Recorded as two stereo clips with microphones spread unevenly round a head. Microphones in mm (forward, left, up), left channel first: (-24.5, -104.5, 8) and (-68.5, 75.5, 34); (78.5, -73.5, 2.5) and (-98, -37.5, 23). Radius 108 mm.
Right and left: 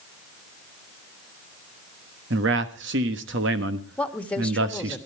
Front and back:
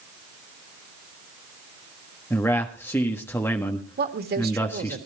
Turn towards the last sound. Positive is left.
turn(degrees=-160)